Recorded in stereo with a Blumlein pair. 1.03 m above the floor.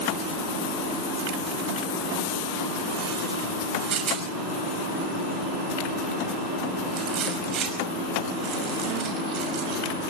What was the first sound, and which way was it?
A rattle, 30° right.